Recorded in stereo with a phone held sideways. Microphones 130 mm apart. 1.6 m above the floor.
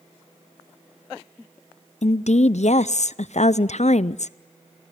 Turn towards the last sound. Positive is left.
turn(degrees=65)  # may be behind; listen again after turning